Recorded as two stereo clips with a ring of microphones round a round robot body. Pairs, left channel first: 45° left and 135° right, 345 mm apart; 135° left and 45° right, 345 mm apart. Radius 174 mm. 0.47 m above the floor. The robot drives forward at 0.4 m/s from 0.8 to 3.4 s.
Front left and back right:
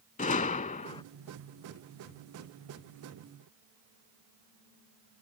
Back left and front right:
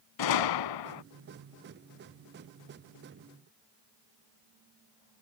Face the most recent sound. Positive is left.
turn(degrees=160)